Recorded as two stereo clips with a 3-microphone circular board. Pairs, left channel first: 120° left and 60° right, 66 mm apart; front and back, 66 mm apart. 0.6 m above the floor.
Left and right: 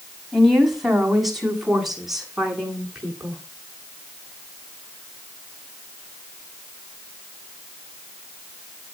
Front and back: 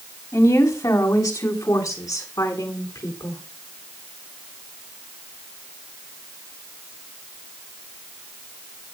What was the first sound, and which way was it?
A woman speaking, 30° left.